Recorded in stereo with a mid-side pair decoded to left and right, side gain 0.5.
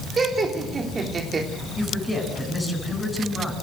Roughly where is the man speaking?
Ahead.